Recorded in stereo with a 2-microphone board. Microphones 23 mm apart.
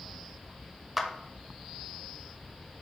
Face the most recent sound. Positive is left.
turn(degrees=-10)  # may be behind; listen again after turning